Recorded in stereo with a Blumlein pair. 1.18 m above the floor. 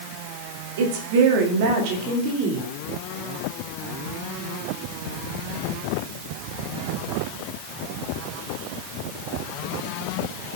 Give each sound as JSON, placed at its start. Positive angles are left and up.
{"t": 0.8, "sound": "a woman speaking", "azimuth_deg": -55, "distance_m": 2.0}